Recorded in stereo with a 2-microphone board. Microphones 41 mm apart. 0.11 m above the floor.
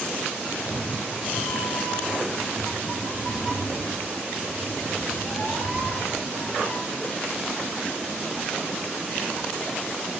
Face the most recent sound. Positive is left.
turn(degrees=55)  # may be behind; listen again after turning